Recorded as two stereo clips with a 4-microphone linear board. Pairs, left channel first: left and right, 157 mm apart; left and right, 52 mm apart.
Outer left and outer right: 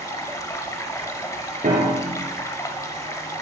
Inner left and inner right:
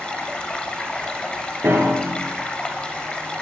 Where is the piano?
60° right (ahead or behind), 2.5 m.